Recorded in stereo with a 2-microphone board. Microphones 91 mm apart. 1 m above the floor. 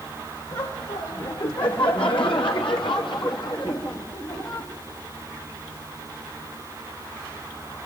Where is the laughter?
60° left (ahead or behind), 2.0 m; by 4.7 s 50° left (ahead or behind), 2.5 m.